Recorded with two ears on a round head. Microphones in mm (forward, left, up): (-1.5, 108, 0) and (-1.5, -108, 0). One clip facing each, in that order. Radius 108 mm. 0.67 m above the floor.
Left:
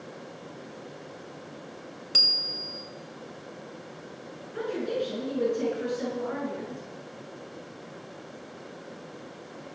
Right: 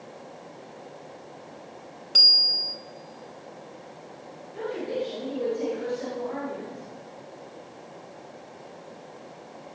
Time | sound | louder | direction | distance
2.1 | a bicycle bell | even | 30° left (ahead or behind) | 2.5 m
4.5 | a woman speaking | even | 80° left | 8.5 m